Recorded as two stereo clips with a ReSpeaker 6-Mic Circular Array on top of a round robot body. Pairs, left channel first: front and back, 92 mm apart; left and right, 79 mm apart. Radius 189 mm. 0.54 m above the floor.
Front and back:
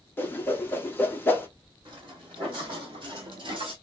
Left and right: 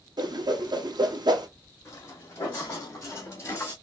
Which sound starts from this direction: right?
A whoosh, at 0.2 s.